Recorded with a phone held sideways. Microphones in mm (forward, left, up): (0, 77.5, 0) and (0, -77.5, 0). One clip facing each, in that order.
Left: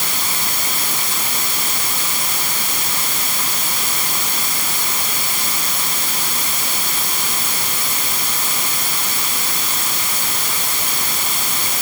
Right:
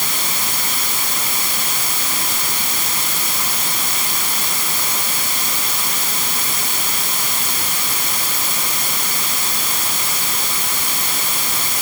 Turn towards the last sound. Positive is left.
No sound to turn to.